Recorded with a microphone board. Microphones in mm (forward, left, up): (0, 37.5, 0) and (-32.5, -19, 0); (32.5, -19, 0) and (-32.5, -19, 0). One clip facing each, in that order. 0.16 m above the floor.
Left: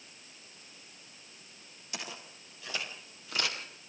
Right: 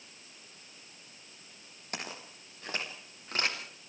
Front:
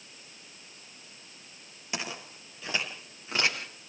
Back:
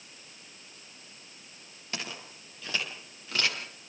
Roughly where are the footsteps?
Right.